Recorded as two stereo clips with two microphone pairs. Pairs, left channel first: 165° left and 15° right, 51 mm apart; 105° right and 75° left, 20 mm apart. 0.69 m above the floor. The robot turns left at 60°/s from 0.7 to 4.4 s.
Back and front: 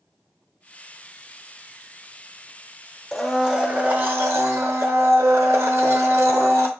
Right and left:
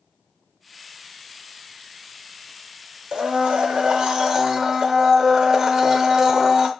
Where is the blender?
85° left, 0.7 m; by 6.7 s 5° left, 0.7 m.